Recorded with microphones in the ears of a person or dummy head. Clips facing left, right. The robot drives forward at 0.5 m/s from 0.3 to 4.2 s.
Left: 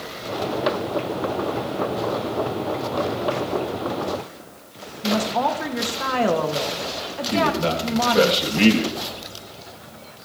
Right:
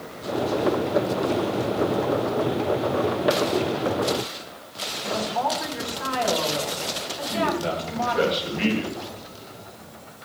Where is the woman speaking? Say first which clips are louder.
Left 4 dB; 60° left (ahead or behind), 2.5 m.